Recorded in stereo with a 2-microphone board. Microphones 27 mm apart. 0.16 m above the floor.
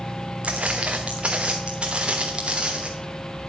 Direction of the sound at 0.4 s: 55° right (ahead or behind).